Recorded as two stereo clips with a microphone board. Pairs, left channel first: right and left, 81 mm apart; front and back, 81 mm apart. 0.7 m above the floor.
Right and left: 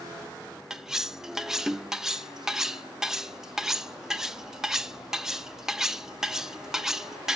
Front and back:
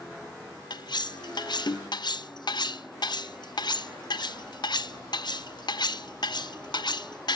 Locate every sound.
0.7 s cutlery clinking: 5° left, 0.6 m